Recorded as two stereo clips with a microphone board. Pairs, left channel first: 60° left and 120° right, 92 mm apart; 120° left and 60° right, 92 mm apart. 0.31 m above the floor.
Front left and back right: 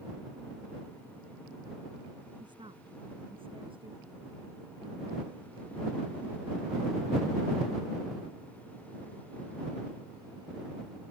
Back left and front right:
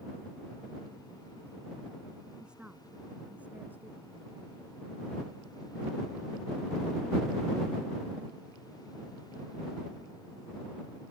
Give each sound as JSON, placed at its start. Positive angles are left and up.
{"t": 2.4, "sound": "a woman speaking", "azimuth_deg": -140}